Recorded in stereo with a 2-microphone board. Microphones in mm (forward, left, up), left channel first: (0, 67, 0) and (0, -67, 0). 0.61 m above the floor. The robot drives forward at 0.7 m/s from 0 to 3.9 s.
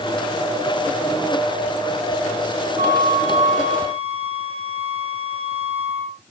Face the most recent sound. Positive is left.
turn(degrees=-50)  # may be behind; listen again after turning